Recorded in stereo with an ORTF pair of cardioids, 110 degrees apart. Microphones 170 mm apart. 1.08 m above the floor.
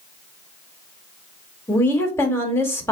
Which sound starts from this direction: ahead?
A woman speaking, at 1.7 s.